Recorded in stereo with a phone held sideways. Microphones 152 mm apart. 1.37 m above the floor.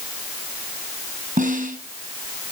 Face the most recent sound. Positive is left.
turn(degrees=-55)  # may be behind; listen again after turning